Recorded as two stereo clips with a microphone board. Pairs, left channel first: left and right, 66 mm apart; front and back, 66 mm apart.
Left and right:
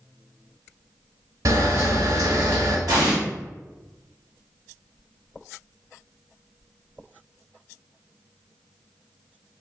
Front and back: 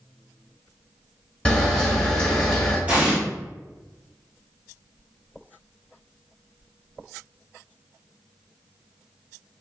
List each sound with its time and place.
1.4 s a camera shutter: 75° right, 1.3 m
2.9 s an explosion: 110° right, 1.1 m